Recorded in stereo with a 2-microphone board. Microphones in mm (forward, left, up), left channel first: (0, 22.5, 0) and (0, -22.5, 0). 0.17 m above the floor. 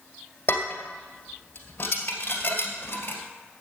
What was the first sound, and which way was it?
Dishes clattering, 40° left (ahead or behind).